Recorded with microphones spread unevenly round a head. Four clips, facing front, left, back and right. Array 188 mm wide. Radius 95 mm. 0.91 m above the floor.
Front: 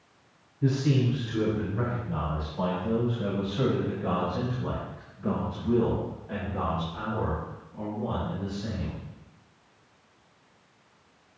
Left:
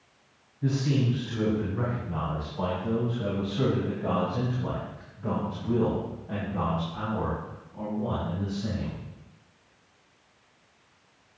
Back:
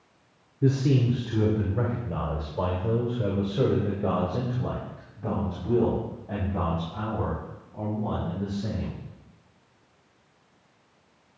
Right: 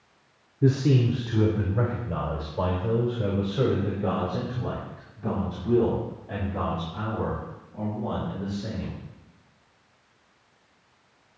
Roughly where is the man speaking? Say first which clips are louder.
Right 5 dB, back 2 dB; behind right.